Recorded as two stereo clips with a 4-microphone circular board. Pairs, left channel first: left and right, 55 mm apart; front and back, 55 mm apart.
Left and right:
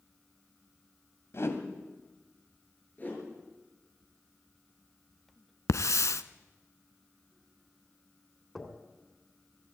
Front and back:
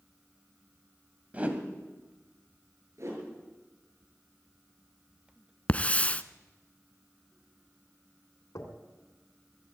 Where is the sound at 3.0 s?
150° left, 6.5 m.